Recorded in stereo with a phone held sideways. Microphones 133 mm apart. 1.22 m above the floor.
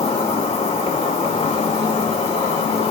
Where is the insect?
40° left (ahead or behind), 3 m.